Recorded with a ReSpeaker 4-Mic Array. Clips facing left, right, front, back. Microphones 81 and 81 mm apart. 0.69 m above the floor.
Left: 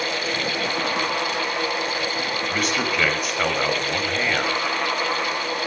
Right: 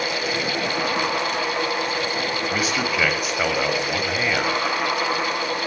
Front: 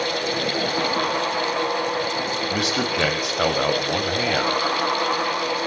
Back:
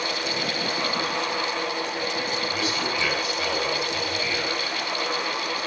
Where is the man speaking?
Straight ahead, 4.5 m.